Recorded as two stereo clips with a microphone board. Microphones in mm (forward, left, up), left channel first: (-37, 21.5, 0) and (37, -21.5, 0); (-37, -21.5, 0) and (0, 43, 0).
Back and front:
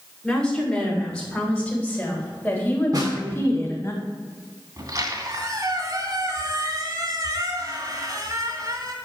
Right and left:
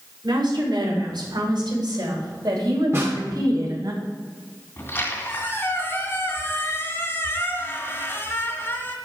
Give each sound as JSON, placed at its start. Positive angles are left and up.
{"t": 0.2, "sound": "a woman speaking", "azimuth_deg": 65, "distance_m": 5.0}
{"t": 2.9, "sound": "a snare drum", "azimuth_deg": 10, "distance_m": 2.5}
{"t": 4.8, "sound": "a squeak", "azimuth_deg": -70, "distance_m": 2.0}